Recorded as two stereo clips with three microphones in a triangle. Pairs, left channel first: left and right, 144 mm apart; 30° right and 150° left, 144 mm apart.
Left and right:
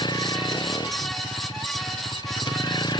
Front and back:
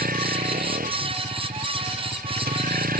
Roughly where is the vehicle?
Behind left.